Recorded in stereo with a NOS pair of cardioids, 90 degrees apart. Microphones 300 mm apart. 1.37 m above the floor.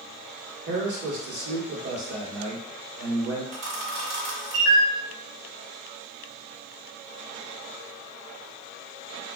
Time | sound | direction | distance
0.7 | a man speaking | 50° right | 1.2 m
3.5 | a camera shutter | 40° right | 1.2 m